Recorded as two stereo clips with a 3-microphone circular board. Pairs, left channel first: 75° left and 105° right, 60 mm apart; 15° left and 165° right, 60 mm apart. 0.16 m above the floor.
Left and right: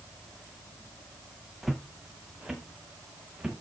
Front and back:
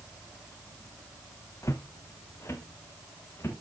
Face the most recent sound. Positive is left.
turn(degrees=-30)